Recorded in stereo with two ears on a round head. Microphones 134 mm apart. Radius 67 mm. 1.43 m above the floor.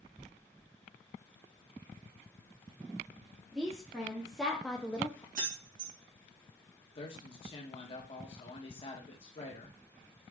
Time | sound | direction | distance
3.5 | a woman speaking | 5° right (ahead or behind) | 1.3 m
5.3 | keys jangling | 70° right (ahead or behind) | 1.5 m
7.0 | a man speaking | 40° left (ahead or behind) | 1.2 m